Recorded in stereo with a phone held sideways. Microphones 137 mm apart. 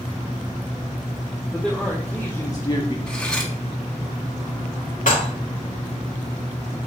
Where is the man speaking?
Centre (ahead or behind), 1.4 m; by 3.0 s 40° left (ahead or behind), 0.9 m.